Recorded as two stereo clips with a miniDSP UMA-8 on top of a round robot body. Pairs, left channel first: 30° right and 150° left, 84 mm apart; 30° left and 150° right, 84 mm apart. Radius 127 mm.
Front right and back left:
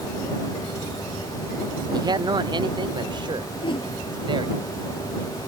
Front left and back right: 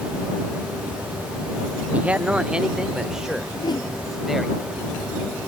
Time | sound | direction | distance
1.9 | a man speaking | 140° left | ?
3.6 | a whoosh | 10° right | ?